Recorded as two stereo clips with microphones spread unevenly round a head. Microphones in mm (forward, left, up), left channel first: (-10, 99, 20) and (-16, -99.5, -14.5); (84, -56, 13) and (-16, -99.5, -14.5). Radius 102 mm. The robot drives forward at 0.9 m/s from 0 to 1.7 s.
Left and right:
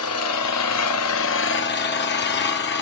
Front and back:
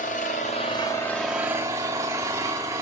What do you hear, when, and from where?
0.0 s an engine running: 65° left, 1.4 m; by 2.8 s 125° left, 1.5 m